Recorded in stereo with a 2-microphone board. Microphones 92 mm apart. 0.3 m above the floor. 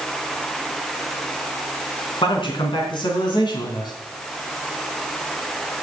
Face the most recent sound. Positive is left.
turn(degrees=50)  # may be behind; listen again after turning